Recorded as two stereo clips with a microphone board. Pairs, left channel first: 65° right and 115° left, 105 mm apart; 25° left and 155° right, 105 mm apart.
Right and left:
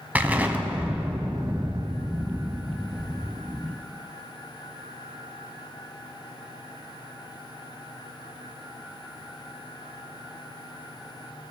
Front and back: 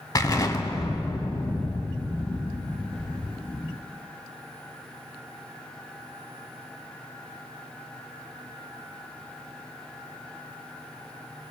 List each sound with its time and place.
0.1 s an explosion: 50° left, 0.6 m